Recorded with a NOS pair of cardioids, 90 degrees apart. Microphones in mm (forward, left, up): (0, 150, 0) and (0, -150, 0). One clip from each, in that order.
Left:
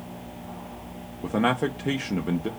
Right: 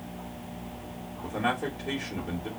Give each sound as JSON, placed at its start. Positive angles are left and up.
{"t": 1.2, "sound": "a man speaking", "azimuth_deg": 50, "distance_m": 0.6}